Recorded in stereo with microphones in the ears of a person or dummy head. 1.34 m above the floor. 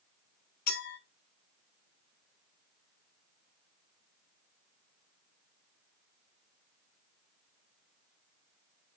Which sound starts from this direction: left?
A clink, at 0.7 s.